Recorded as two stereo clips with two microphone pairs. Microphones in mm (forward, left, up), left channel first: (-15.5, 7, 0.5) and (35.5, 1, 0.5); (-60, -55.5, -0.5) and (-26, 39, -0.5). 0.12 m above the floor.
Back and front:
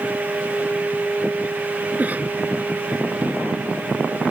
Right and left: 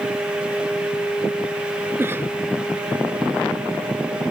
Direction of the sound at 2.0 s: 20° left.